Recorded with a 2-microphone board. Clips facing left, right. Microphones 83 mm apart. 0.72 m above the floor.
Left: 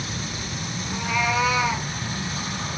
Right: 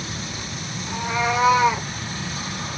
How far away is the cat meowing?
About 1.4 m.